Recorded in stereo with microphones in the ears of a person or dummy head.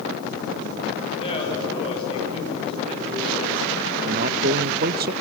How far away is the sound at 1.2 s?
About 7 m.